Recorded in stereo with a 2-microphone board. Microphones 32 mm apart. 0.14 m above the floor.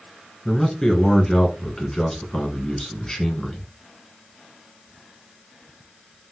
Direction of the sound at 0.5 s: 15° left (ahead or behind).